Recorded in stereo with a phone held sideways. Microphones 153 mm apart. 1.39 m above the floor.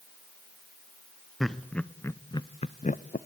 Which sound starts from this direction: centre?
Laughter, at 1.4 s.